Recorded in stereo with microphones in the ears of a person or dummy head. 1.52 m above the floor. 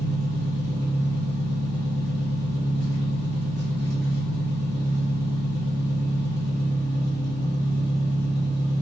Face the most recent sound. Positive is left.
turn(degrees=-60)  # may be behind; listen again after turning